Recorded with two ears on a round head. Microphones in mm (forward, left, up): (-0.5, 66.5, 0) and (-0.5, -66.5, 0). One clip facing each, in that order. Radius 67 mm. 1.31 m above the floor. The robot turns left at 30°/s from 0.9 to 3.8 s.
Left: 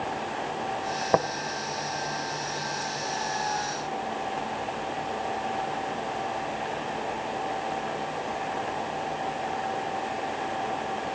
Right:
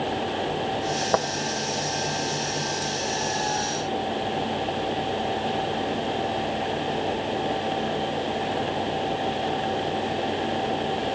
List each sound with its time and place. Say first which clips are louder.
1.1 s tapping: left 1 dB; 10° left (ahead or behind), 0.7 m; by 1.2 s 15° left (ahead or behind), 0.7 m